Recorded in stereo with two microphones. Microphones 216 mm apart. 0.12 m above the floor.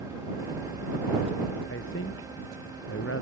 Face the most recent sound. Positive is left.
turn(degrees=80)